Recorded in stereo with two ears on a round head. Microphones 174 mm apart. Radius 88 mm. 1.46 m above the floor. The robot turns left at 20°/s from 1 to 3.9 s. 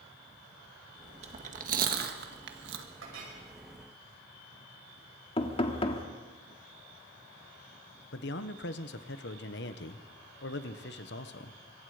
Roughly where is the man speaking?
Left.